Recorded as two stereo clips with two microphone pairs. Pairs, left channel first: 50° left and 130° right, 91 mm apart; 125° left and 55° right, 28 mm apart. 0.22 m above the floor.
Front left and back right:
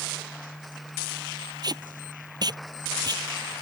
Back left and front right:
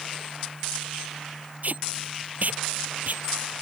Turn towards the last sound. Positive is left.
turn(degrees=-90)